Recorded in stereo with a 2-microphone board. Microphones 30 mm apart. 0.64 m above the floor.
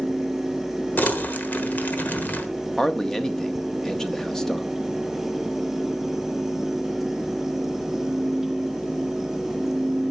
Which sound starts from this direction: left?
Crumpling, at 1.0 s.